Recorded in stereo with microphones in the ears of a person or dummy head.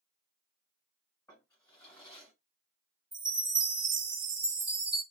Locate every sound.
1.3 s a drawer: 10° left (ahead or behind), 1.9 m
3.1 s a chime: 5° right (ahead or behind), 1.5 m